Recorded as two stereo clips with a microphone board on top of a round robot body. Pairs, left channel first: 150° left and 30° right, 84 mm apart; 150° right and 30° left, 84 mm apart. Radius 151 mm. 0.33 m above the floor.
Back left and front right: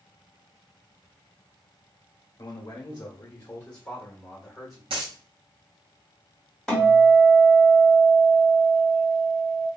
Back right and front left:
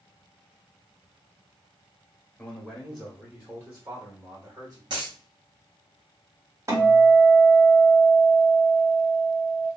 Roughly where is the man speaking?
Behind left.